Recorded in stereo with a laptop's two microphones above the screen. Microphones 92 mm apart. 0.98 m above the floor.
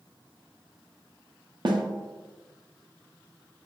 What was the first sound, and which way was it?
A snare drum, 55° right (ahead or behind).